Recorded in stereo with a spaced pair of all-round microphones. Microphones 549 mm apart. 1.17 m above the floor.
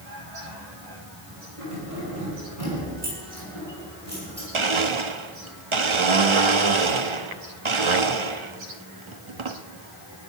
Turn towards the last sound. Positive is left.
turn(degrees=-60)  # may be behind; listen again after turning